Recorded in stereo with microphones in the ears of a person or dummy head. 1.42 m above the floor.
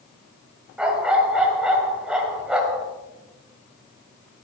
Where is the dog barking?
5° right (ahead or behind), 1.7 m.